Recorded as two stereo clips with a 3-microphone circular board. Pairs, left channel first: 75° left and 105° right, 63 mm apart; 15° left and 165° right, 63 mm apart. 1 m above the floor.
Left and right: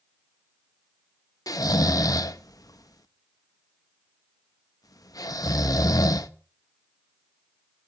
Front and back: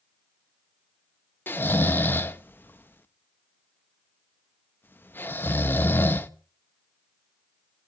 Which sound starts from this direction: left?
Snoring, at 1.5 s.